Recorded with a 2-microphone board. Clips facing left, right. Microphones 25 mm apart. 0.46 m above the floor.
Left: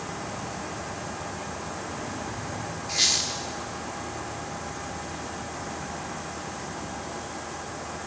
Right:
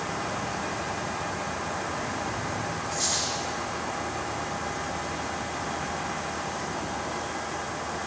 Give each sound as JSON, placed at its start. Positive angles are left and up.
{"t": 2.9, "sound": "a squeak", "side_deg": 75, "distance_m": 4.0}